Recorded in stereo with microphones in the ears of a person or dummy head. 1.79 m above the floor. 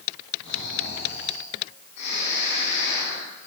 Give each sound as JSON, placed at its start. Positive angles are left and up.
{"t": 0.4, "sound": "snoring", "side_deg": 55, "distance_m": 9.0}